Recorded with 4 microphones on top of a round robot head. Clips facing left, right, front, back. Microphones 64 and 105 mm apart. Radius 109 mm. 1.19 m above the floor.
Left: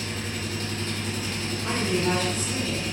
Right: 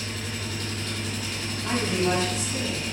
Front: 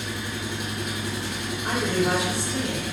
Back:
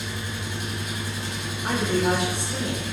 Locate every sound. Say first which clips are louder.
0.0 s an engine running: left 2 dB, front 2 dB; 35° left, 0.8 m
1.6 s a woman speaking: right 1 dB, back 1 dB; 140° left, 1.2 m